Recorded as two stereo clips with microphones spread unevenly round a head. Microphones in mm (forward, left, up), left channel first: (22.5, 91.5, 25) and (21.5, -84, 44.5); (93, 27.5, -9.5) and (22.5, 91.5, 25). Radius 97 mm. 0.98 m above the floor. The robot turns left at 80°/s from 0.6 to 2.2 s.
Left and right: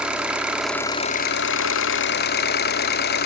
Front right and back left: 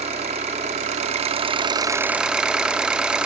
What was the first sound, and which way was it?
An engine running, 175° right.